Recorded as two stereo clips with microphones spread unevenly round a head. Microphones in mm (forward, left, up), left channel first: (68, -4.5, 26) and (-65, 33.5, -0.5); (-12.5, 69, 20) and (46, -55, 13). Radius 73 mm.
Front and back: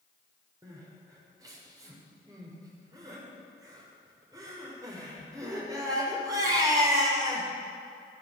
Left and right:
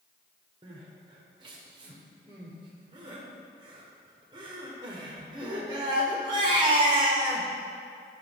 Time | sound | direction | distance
0.6 | crying | 125° right | 1.8 m